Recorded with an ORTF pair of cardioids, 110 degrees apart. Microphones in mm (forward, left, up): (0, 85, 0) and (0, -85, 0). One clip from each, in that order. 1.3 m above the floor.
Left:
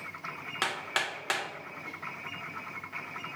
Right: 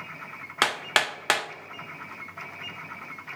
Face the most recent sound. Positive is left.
turn(degrees=-40)